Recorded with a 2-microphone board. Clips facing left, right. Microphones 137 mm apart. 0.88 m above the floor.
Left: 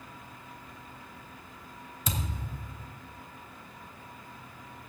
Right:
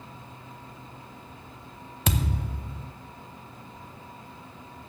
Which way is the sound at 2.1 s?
70° right (ahead or behind).